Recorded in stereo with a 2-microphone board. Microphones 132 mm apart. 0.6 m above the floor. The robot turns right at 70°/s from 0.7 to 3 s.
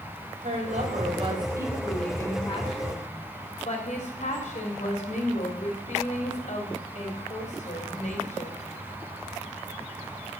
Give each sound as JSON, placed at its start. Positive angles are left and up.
{"t": 0.4, "sound": "a woman speaking", "azimuth_deg": -85, "distance_m": 3.0}